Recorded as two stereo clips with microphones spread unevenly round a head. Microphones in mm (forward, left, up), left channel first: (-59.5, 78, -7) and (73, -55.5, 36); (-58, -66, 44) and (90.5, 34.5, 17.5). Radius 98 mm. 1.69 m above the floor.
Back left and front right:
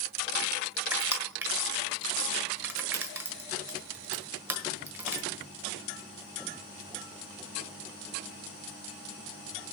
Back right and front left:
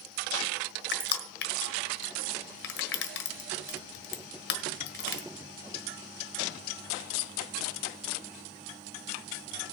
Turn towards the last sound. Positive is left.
turn(degrees=-120)